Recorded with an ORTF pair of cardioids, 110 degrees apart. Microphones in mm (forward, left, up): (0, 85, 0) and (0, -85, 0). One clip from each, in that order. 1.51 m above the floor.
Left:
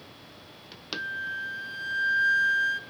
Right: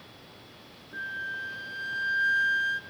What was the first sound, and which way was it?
A flute, 5° left.